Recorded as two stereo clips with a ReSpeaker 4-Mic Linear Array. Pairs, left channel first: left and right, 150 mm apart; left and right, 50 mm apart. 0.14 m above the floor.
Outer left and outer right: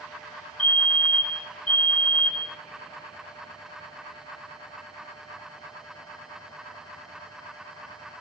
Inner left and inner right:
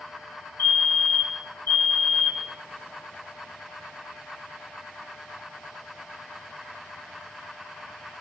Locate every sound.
0.6 s a fire alarm: 50° left (ahead or behind), 3.5 m